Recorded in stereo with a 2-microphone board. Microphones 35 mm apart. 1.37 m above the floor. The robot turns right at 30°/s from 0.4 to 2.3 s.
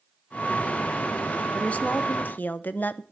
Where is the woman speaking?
40° left (ahead or behind), 0.7 m; by 3.0 s 60° left (ahead or behind), 0.7 m.